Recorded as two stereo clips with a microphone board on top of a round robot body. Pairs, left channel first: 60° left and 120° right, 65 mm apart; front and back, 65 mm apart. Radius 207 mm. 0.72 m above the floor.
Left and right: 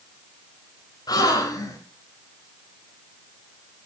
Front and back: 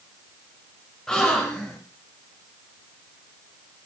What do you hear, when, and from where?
1.1 s a gasp: 80° left, 3 m